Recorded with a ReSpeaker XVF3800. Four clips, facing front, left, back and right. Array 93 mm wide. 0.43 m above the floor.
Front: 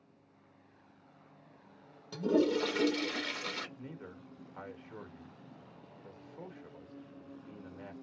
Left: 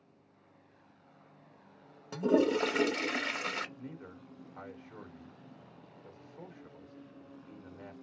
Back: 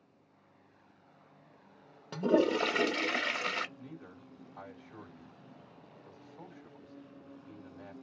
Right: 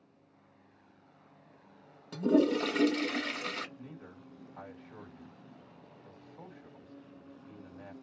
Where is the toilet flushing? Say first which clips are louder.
Right 1 dB, back 2 dB; 155° left, 0.8 m.